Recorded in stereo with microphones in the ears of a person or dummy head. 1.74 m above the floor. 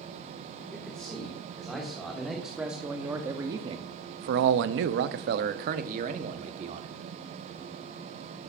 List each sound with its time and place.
0.7 s a man speaking: 5° left (ahead or behind), 2 m; by 6.9 s 35° right (ahead or behind), 1.5 m